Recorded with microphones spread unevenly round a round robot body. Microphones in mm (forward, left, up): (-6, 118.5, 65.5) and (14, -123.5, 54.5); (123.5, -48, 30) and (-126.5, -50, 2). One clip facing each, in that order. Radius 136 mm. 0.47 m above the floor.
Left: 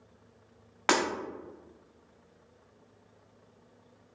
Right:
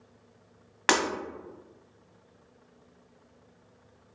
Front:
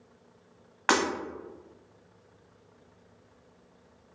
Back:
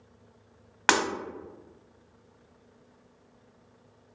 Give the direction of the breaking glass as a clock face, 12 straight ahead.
5 o'clock.